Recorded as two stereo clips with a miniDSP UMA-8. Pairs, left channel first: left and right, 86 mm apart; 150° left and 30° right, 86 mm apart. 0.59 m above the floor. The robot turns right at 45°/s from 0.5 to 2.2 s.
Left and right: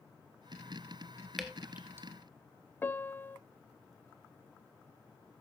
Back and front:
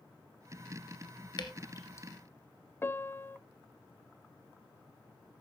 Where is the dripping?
Straight behind, 1.6 m; by 2.1 s 150° right, 1.6 m.